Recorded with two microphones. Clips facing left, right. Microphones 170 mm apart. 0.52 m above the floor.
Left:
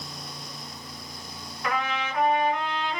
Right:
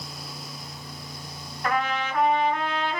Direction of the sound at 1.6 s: 45° right (ahead or behind).